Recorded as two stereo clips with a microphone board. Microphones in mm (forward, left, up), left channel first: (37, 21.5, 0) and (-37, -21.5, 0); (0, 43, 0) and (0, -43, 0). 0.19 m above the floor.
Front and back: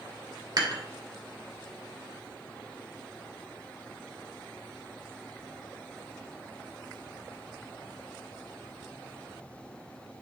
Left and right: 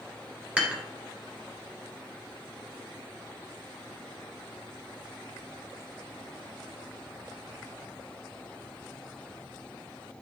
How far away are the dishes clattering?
About 1.7 m.